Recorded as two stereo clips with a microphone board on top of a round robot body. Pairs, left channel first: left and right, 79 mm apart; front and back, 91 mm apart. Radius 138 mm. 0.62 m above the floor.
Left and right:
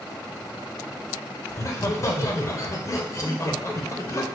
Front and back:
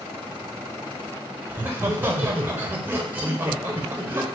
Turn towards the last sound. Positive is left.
turn(degrees=120)